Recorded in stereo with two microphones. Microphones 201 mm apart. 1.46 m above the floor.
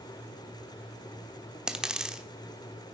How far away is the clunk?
No clunk in this recording.